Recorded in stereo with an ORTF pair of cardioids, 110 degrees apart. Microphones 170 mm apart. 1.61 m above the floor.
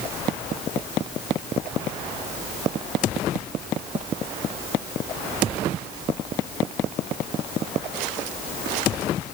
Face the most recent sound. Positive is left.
No sound to turn to.